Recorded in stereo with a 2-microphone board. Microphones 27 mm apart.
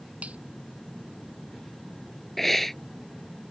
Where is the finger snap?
60° right (ahead or behind).